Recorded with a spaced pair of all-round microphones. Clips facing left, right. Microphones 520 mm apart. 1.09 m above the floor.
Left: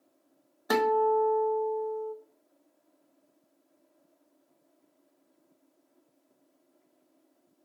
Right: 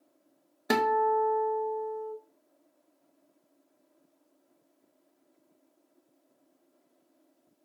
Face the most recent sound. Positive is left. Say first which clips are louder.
# left 2 dB
turn(degrees=-50)  # may be behind; listen again after turning